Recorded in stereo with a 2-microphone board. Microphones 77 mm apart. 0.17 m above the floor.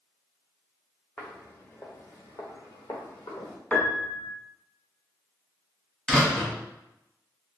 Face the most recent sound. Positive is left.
turn(degrees=10)  # may be behind; listen again after turning